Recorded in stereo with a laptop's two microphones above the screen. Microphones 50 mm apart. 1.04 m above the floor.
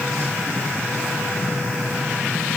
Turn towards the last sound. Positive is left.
No sound to turn to.